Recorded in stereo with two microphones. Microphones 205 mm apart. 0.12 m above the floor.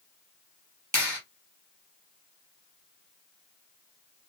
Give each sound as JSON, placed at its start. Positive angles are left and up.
{"t": 0.9, "sound": "a clap", "side_deg": -15, "distance_m": 2.5}